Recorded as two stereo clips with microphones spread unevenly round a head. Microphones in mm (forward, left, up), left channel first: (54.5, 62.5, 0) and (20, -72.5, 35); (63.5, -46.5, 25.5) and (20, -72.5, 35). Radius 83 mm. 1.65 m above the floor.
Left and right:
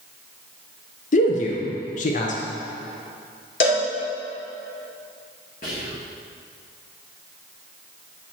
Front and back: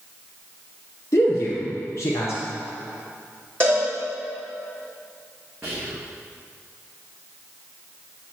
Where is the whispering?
125° left, 1.3 m.